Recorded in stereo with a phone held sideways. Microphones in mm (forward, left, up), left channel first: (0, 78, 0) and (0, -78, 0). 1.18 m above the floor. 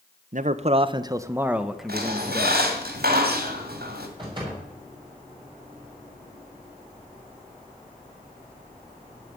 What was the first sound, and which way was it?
A man speaking, 55° right (ahead or behind).